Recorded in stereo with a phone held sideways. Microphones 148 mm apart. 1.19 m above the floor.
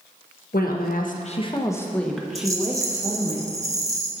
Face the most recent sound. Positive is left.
turn(degrees=-20)  # may be behind; listen again after turning